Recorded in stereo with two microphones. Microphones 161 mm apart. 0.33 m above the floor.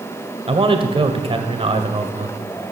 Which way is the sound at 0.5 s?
35° right (ahead or behind).